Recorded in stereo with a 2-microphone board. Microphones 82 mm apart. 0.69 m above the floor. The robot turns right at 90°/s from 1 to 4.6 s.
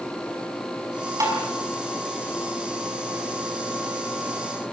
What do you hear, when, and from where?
1.2 s tapping: 40° right (ahead or behind), 5.5 m; by 1.4 s 25° right (ahead or behind), 5.5 m